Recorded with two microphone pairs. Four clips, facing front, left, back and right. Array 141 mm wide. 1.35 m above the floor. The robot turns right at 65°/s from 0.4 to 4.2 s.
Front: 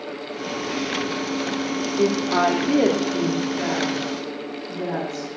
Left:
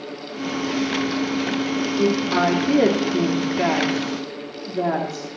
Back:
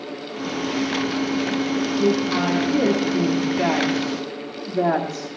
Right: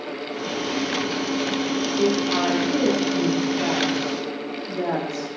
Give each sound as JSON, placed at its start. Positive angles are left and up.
{"t": 2.0, "sound": "a woman speaking", "azimuth_deg": 5, "distance_m": 2.5}